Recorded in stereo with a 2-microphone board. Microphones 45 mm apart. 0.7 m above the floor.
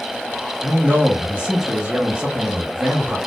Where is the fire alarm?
I don't hear a fire alarm.